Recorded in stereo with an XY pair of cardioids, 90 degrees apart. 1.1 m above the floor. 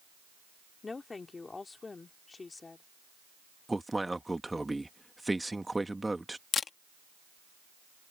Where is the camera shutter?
50° left.